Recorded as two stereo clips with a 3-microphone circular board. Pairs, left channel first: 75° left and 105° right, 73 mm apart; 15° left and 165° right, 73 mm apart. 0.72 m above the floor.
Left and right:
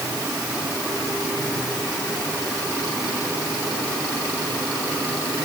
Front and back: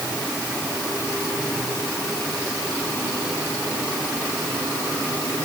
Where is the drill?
No drill in this recording.